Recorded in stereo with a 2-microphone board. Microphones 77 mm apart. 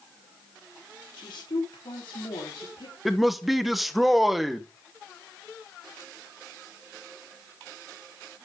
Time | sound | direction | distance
1.2 | a woman speaking | 80° left | 4 m
3.0 | a man speaking | centre (ahead or behind) | 1.0 m